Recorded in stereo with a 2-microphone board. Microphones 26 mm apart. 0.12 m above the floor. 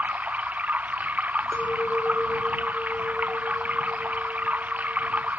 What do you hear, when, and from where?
0.0 s running water: 80° right
1.5 s a clink: 80° left